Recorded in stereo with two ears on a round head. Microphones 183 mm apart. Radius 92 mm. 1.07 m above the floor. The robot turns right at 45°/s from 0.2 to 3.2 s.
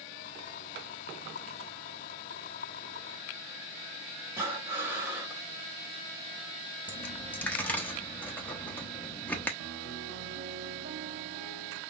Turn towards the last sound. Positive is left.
turn(degrees=-75)  # may be behind; listen again after turning